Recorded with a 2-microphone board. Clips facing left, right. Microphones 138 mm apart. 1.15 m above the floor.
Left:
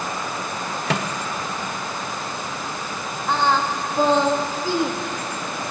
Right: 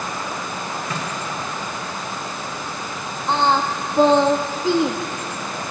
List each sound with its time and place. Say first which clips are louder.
0.9 s a microwave: left 3 dB; 80° left, 1.0 m
3.3 s singing: right 2 dB; 20° right (ahead or behind), 1.0 m